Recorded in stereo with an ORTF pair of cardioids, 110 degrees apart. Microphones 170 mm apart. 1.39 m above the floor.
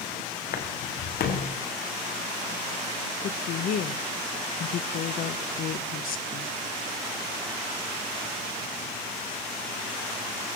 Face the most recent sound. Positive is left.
turn(degrees=60)